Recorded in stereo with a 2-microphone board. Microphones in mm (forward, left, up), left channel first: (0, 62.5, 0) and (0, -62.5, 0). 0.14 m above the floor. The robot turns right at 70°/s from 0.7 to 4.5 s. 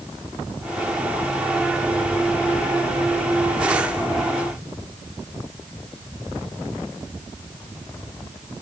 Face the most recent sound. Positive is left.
No sound to turn to.